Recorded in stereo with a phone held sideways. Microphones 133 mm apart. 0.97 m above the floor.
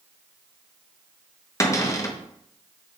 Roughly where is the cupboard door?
Left.